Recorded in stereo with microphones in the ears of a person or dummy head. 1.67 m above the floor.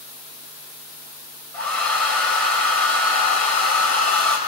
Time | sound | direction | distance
1.5 | a hair dryer | 5° left (ahead or behind) | 5 m